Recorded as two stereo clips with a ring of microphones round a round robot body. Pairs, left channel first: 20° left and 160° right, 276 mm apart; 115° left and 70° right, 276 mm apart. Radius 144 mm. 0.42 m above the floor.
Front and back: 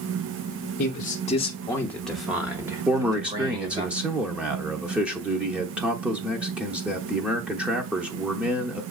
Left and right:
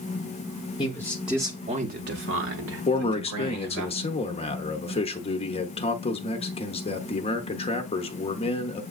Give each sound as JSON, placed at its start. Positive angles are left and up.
{"t": 0.8, "sound": "a man speaking", "azimuth_deg": 50, "distance_m": 0.9}
{"t": 2.9, "sound": "a man speaking", "azimuth_deg": 125, "distance_m": 0.7}